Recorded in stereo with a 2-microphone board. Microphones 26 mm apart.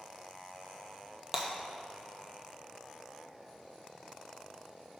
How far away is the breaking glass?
About 1.1 m.